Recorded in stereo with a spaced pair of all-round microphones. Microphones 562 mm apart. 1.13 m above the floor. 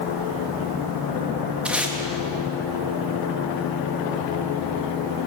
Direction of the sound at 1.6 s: Centre (ahead or behind).